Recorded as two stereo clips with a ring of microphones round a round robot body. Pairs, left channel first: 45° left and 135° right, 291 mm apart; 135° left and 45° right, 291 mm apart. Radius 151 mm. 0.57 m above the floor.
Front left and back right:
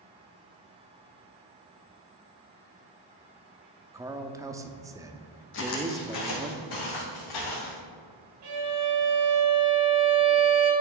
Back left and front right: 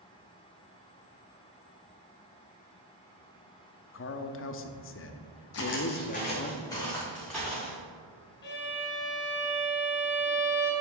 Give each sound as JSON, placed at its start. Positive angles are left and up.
{"t": 3.9, "sound": "a man speaking", "azimuth_deg": 150, "distance_m": 0.7}
{"t": 5.5, "sound": "footsteps", "azimuth_deg": 95, "distance_m": 1.6}
{"t": 8.4, "sound": "a violin", "azimuth_deg": -170, "distance_m": 2.0}